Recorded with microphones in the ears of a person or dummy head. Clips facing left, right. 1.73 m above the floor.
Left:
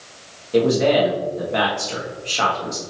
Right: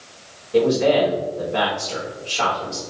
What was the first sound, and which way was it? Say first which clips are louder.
A man speaking: even; 60° left (ahead or behind).